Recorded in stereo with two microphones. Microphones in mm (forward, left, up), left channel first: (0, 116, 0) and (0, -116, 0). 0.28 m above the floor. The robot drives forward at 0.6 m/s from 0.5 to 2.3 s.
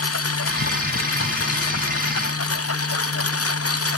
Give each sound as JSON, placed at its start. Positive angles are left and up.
{"t": 0.0, "sound": "a lawn mower", "side_deg": 90}